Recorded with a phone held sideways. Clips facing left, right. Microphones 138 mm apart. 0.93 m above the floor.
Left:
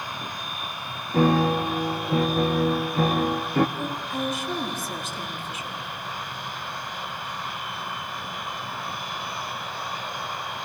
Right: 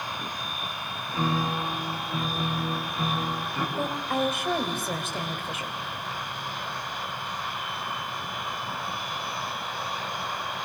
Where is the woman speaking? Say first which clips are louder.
Right 2 dB; 65° right (ahead or behind), 4 m.